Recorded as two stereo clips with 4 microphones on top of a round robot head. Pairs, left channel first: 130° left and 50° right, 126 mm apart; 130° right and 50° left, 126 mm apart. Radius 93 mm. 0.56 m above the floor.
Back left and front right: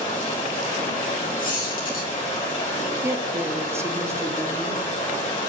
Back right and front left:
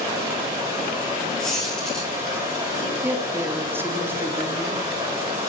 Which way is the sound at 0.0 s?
100° left.